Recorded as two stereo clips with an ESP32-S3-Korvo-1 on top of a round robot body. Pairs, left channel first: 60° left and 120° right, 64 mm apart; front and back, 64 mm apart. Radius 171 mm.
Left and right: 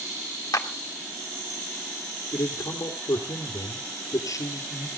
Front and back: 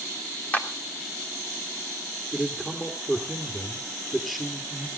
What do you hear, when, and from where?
0.5 s a clap: 60° left, 1.5 m
2.3 s a man speaking: 90° left, 2.5 m